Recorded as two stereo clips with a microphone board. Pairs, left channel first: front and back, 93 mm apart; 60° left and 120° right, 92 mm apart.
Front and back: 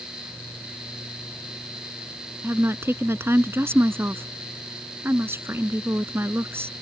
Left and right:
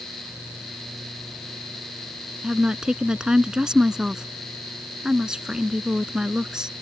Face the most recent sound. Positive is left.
turn(degrees=170)